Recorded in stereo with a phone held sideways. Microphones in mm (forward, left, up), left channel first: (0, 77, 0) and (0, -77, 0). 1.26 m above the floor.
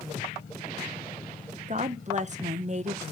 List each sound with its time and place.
1.7 s a woman speaking: 45° right (ahead or behind), 0.7 m